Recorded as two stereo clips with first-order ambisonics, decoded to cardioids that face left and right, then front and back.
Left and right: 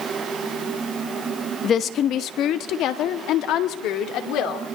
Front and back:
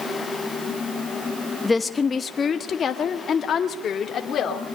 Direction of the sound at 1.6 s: 70° left.